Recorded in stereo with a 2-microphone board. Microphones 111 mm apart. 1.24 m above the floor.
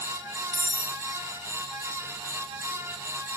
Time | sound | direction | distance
0.5 | cutlery clinking | 35° right (ahead or behind) | 1.0 m